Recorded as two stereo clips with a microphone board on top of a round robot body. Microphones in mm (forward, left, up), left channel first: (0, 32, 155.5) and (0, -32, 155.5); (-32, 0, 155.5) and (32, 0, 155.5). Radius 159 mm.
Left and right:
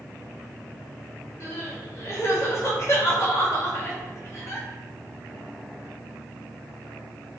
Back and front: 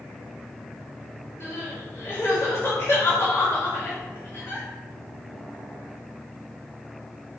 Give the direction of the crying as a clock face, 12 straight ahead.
8 o'clock.